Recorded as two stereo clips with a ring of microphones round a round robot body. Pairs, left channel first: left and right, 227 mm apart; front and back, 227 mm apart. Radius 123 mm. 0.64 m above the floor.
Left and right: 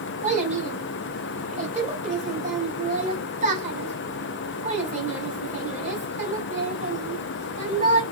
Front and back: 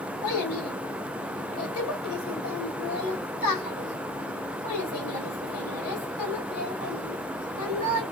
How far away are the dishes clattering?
No dishes clattering in this recording.